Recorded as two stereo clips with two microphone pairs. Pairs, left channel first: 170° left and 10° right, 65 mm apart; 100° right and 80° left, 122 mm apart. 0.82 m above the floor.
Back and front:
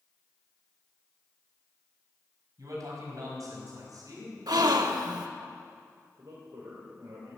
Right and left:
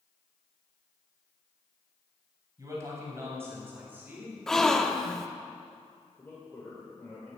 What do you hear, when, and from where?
2.6 s a man speaking: 15° left, 5 m; by 4.4 s straight ahead, 5.5 m
4.5 s a gasp: 15° right, 0.9 m
6.2 s a man speaking: 30° right, 2.5 m